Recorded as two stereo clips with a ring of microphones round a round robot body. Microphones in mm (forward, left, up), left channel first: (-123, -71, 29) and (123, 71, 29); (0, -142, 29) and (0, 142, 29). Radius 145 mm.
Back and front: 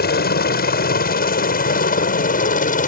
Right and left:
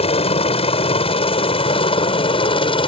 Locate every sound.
0.0 s a helicopter: 140° right